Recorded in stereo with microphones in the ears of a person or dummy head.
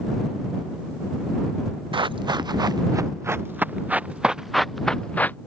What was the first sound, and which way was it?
Running footsteps, 15° right (ahead or behind).